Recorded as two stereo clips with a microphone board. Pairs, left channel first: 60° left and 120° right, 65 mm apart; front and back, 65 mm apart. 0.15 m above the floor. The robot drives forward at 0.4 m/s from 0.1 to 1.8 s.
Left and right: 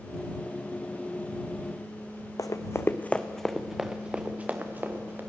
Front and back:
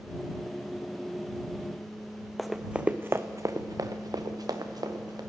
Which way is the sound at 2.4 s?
85° left.